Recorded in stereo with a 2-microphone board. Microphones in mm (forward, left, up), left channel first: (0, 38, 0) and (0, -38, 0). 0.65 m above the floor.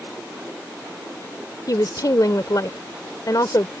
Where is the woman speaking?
60° left (ahead or behind).